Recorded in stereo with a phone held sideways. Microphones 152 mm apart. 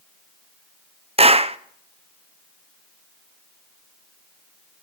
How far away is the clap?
About 0.6 m.